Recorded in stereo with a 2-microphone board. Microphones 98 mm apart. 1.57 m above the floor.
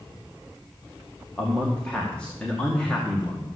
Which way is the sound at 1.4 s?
10° left (ahead or behind).